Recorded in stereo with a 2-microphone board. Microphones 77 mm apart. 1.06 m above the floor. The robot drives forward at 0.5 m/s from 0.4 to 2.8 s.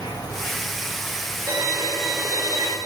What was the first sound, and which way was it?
An insect, 60° left (ahead or behind).